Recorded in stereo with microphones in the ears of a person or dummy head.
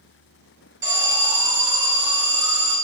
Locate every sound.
0.8 s an alarm: 20° right (ahead or behind), 3 m